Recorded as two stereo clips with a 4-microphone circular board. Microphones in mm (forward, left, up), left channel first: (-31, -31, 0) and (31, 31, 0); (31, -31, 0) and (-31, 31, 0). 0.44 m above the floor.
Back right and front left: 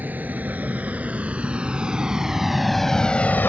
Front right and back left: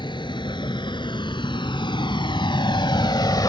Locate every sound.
0.0 s a vehicle: 25° right; by 3.5 s 75° right